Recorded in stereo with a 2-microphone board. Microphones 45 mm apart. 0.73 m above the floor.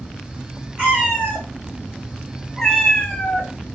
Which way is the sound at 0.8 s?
30° right (ahead or behind).